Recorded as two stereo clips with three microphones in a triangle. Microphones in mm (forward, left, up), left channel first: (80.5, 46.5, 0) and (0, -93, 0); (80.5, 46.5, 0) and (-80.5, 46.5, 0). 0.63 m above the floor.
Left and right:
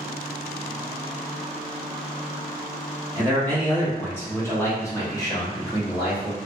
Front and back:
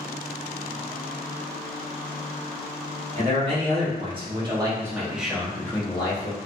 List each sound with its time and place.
3.1 s a man speaking: 140° left, 1.5 m; by 6.3 s 5° left, 0.8 m